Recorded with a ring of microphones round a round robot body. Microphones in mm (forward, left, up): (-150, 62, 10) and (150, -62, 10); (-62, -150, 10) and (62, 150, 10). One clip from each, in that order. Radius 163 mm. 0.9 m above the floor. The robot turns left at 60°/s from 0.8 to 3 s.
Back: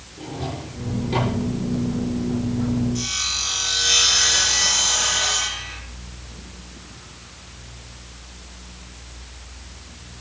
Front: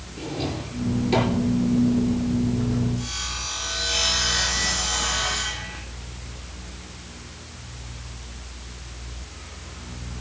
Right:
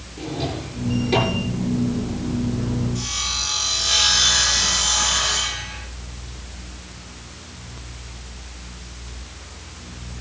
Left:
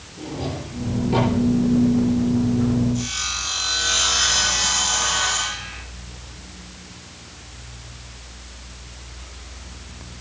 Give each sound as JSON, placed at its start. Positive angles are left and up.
{"t": 0.2, "sound": "a drawer", "azimuth_deg": -65, "distance_m": 8.0}
{"t": 3.0, "sound": "sawing", "azimuth_deg": 155, "distance_m": 4.0}